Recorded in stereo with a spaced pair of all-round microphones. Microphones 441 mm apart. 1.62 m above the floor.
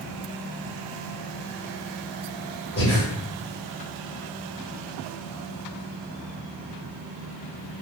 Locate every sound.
2.8 s breathing: 30° left (ahead or behind), 1.9 m